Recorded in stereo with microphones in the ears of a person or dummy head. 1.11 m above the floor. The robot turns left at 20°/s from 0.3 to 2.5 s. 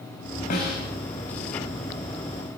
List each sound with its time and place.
0.5 s a snare drum: 50° left (ahead or behind), 4.5 m; by 0.8 s 55° left (ahead or behind), 4.5 m